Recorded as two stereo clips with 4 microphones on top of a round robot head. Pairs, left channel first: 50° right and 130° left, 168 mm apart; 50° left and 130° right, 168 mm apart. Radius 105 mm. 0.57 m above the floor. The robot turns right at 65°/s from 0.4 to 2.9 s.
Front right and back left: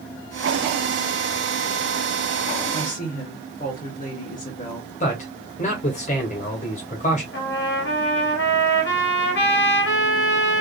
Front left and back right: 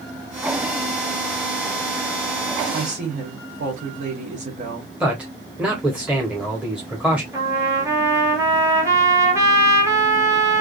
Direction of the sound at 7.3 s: 55° right.